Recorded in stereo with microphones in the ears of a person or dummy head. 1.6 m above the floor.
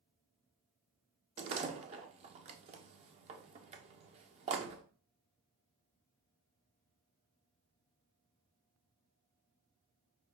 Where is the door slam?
35° right (ahead or behind), 0.7 m.